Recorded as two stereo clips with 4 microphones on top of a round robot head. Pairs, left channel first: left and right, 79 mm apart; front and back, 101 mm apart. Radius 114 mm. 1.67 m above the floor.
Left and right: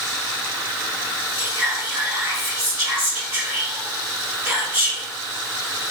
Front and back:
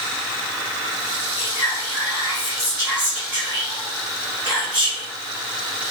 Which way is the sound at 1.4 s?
115° right.